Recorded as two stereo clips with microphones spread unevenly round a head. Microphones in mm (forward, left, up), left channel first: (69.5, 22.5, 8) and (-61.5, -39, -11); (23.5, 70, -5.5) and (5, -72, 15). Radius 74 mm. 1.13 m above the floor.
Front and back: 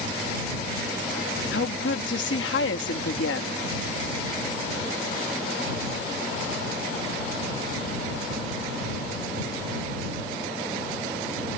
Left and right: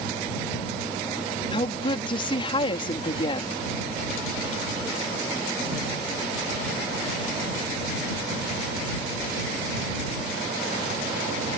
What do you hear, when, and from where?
1.5 s a woman speaking: 25° left